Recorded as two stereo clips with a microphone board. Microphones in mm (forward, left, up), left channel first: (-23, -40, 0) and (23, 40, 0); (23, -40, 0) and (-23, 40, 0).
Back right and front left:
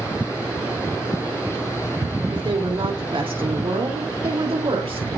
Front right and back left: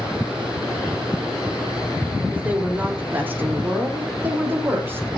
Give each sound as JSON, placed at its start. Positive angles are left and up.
{"t": 2.3, "sound": "a woman speaking", "azimuth_deg": 50, "distance_m": 3.5}